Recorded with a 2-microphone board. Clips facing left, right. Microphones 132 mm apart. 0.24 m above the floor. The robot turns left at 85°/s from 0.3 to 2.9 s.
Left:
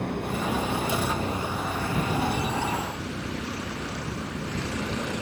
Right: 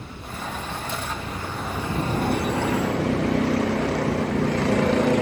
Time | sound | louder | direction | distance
0.0 | a vehicle | left 7 dB | 115° left | ?